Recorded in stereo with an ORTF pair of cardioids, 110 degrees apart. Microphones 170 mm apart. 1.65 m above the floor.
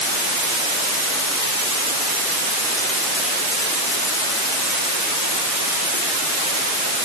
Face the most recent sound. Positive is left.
No sound to turn to.